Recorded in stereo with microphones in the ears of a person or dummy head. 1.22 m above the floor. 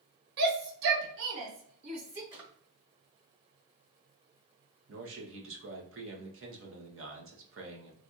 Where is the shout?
55° right (ahead or behind), 1.2 m; by 2.2 s 80° right, 1.5 m.